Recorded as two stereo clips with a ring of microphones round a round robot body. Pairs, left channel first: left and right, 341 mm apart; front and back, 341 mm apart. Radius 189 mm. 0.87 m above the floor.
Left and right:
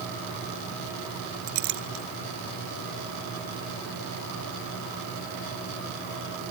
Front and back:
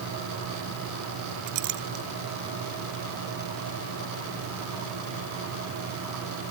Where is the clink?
135° right.